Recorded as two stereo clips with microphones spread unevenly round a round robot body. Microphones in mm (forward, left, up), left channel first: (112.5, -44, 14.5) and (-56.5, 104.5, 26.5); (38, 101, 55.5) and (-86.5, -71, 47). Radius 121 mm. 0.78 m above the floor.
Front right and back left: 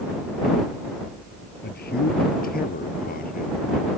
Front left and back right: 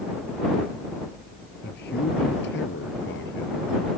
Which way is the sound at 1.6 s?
5° left.